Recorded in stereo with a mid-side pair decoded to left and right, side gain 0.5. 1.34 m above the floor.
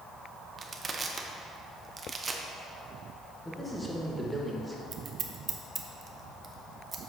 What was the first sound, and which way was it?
Crushing, 35° right.